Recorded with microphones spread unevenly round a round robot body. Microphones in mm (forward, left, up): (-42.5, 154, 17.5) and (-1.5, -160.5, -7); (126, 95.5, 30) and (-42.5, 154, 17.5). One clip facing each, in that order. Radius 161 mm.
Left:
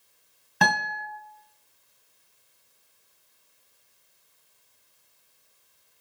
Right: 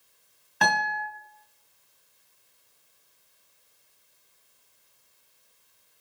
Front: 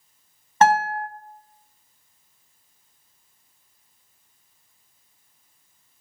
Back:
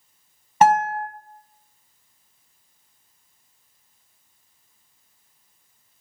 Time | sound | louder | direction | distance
0.6 | a guitar | left 1 dB, back 1 dB | 85° left | 2.5 m